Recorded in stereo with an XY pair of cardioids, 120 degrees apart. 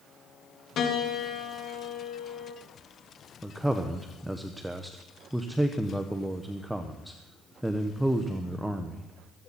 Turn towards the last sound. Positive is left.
turn(degrees=0)